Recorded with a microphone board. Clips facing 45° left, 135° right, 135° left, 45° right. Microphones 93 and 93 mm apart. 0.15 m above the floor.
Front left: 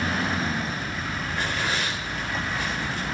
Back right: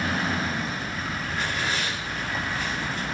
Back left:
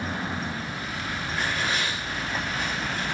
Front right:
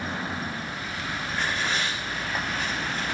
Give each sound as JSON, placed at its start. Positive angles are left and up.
{"t": 1.3, "sound": "tearing paper", "azimuth_deg": 50, "distance_m": 6.5}